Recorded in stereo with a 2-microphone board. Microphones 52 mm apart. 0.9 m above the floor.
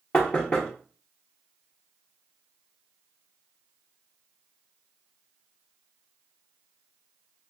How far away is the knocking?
About 0.8 m.